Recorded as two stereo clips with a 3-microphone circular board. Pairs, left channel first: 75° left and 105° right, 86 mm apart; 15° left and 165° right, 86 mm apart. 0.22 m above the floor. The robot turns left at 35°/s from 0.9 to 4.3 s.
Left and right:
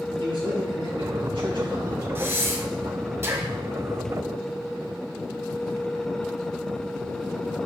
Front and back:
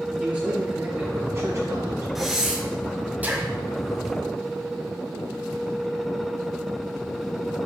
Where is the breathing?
80° right, 1.1 m; by 3.5 s 130° right, 1.1 m.